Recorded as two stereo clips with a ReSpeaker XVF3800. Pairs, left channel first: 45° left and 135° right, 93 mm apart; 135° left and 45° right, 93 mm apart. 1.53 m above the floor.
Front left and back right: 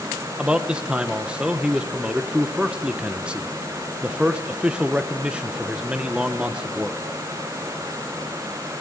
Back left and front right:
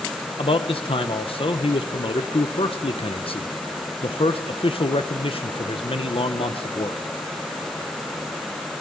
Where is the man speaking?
145° left, 1.3 m.